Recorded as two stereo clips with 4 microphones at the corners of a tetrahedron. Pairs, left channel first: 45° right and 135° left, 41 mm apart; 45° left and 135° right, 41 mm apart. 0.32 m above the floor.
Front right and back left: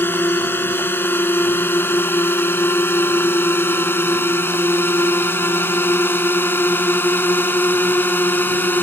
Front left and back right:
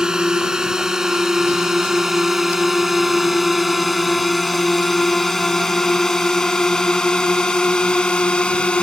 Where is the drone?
65° right; by 8.8 s 20° right.